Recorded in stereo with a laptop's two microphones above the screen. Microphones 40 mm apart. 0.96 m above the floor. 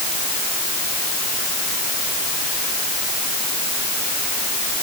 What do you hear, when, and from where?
Only background noise.